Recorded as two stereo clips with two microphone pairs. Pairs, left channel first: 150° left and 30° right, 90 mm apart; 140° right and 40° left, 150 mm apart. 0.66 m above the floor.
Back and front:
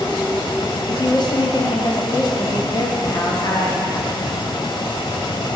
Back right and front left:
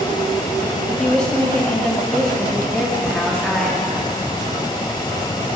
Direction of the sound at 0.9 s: 140° left.